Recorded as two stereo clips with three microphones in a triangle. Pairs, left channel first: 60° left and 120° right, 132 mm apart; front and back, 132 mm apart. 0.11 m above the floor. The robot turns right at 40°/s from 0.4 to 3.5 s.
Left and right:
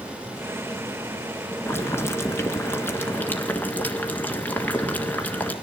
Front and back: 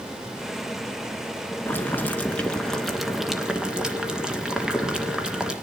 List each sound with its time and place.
1.7 s boiling: 35° left, 1.7 m; by 5.5 s 110° left, 1.7 m